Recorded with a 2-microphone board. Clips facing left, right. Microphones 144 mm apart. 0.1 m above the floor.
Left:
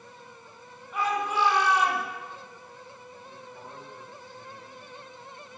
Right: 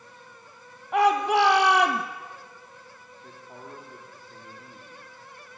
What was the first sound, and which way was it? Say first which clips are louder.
A shout: right 8 dB; 65° right (ahead or behind).